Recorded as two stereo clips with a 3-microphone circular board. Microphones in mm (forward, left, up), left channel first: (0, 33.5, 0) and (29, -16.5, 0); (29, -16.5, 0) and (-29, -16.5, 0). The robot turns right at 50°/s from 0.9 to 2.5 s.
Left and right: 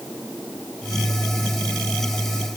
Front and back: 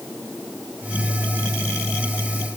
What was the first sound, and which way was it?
Only background noise.